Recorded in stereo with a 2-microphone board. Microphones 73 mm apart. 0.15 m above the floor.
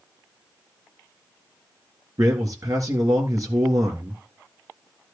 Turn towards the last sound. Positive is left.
turn(degrees=-50)  # may be behind; listen again after turning